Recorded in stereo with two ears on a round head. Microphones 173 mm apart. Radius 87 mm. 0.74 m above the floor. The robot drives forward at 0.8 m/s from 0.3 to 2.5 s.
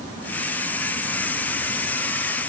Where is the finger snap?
I don't hear a finger snap.